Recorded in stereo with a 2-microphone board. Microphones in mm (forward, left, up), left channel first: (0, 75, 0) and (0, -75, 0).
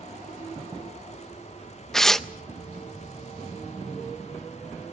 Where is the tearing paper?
5° left (ahead or behind), 0.6 m.